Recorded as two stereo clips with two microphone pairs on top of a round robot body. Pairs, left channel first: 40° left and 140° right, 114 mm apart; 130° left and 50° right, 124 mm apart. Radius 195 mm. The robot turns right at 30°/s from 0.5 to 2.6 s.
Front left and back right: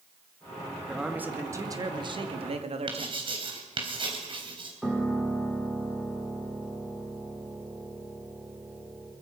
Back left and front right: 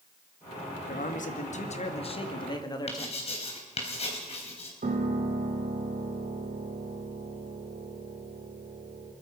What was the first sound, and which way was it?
A man speaking, 135° left.